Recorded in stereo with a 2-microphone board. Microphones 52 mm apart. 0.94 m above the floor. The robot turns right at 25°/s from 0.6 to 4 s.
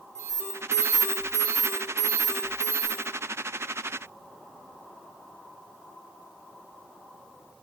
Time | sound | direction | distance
0.1 | an alarm | 120° right | 1.7 m